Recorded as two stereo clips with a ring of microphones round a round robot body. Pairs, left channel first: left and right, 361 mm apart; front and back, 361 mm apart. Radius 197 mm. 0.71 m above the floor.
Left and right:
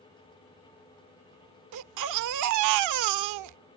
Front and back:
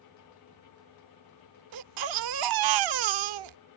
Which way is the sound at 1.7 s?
140° right.